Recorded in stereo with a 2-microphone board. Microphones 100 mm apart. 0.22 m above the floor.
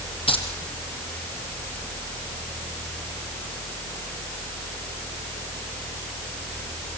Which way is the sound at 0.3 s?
65° left (ahead or behind).